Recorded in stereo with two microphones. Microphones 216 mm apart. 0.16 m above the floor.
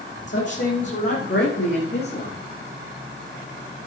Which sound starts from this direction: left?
A woman speaking, at 0.3 s.